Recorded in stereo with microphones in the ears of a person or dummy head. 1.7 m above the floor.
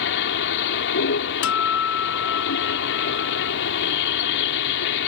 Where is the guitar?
60° left (ahead or behind).